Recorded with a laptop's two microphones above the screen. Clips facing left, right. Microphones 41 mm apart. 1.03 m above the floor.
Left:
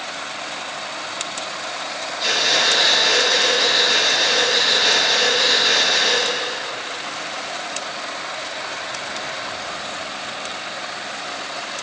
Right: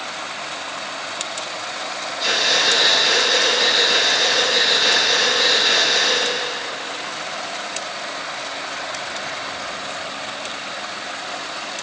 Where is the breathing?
Centre (ahead or behind), 3 m.